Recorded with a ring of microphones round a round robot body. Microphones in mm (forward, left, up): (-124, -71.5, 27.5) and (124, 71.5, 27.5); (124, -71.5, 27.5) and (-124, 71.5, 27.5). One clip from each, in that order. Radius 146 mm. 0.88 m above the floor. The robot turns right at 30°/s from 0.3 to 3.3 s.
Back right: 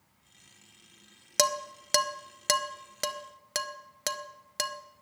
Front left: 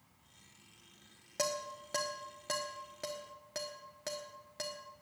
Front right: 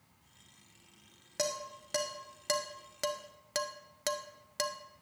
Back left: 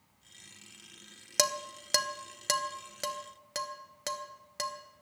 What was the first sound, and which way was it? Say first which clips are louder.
Dishes clattering: back right 9 dB, back left 6 dB; 170° right.